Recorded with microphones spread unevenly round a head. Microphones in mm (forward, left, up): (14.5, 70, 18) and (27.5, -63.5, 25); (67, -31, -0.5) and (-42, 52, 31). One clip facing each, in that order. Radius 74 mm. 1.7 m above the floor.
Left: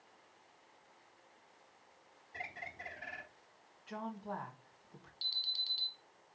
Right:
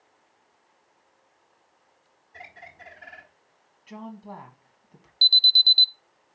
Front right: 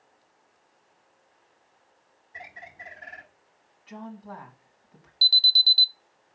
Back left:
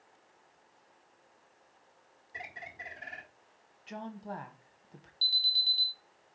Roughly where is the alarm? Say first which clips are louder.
Right 18 dB, front right 14 dB; ahead right.